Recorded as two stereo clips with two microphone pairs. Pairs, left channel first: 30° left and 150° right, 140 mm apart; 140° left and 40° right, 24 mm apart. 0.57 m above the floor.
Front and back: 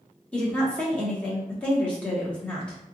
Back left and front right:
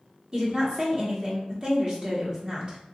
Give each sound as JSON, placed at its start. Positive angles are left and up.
{"t": 0.3, "sound": "a woman speaking", "azimuth_deg": -45, "distance_m": 0.9}